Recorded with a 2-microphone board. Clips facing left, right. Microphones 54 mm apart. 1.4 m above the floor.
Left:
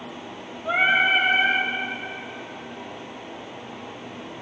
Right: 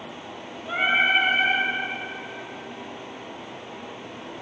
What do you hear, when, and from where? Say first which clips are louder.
0.7 s singing: left 2 dB; 70° left (ahead or behind), 9 m